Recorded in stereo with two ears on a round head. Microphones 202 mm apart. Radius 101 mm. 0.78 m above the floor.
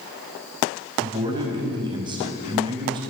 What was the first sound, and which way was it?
A man speaking, 20° right (ahead or behind).